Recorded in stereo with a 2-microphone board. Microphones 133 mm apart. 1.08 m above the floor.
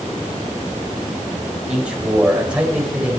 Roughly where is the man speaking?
Centre.